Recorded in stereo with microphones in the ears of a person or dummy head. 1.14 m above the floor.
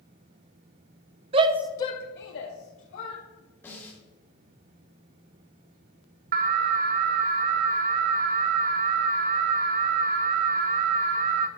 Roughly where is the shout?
Right.